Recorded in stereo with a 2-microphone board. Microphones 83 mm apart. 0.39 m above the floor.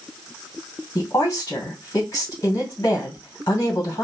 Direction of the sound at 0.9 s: 45° left (ahead or behind).